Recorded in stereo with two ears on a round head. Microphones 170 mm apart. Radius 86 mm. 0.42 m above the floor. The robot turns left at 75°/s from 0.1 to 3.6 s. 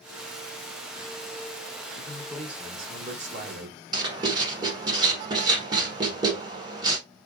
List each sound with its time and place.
1.9 s a man speaking: 30° left, 1.1 m; by 3.8 s 95° right, 1.1 m
3.9 s writing: 20° right (ahead or behind), 1.0 m